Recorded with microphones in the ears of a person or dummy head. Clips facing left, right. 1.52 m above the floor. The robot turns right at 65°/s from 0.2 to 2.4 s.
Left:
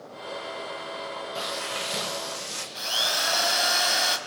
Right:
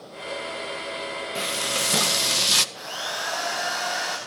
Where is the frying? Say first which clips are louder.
Right 5 dB; 150° right, 1.3 m; by 2.6 s 80° right, 1.3 m.